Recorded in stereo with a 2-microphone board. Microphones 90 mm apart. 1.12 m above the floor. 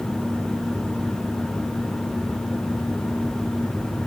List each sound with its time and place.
Only background noise.